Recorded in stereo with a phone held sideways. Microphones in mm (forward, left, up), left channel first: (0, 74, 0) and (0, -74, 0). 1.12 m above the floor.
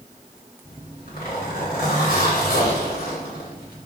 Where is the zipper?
80° left, 1.5 m.